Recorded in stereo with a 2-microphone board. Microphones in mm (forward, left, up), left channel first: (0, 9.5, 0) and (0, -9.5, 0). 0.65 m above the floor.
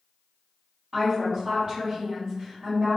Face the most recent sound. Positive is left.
turn(degrees=-40)  # may be behind; listen again after turning